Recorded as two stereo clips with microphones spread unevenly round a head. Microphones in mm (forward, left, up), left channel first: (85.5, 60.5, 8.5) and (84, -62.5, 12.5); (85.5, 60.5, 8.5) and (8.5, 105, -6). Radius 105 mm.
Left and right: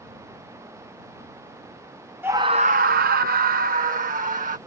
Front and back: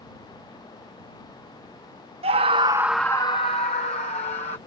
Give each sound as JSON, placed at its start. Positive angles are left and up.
{"t": 2.2, "sound": "a scream", "azimuth_deg": -170}